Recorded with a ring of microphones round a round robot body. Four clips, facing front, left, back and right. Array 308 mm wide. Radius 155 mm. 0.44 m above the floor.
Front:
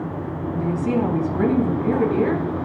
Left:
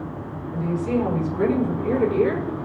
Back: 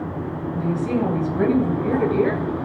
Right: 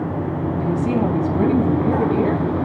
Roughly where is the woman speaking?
Behind right.